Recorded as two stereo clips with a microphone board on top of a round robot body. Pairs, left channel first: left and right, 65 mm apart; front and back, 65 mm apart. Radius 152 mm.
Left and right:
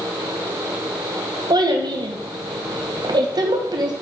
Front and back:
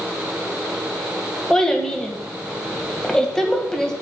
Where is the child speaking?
85° right, 2 m.